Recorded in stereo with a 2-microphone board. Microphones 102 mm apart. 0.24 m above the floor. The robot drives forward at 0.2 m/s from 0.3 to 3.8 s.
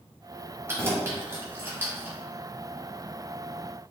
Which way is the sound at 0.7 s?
25° right (ahead or behind).